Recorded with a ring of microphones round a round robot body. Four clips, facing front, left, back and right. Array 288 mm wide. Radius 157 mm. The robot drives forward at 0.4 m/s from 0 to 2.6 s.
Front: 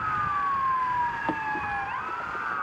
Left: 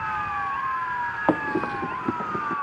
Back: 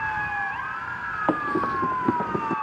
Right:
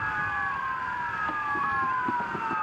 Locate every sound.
1.3 s running footsteps: 110° left; by 2.5 s 170° left